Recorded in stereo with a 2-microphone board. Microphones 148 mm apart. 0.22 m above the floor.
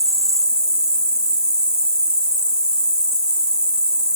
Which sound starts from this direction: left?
An insect, at 0.0 s.